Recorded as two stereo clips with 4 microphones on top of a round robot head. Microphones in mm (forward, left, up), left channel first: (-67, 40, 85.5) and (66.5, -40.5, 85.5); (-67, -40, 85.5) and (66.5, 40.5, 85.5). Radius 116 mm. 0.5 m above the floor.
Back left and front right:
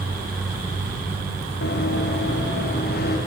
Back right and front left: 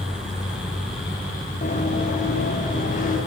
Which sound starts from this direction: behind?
Running footsteps, at 1.6 s.